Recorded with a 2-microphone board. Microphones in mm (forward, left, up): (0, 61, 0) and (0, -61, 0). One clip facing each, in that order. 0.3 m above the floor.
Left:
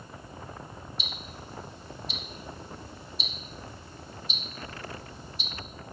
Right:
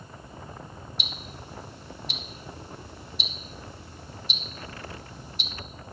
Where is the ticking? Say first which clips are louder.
Right 1 dB; 80° right, 1.0 m.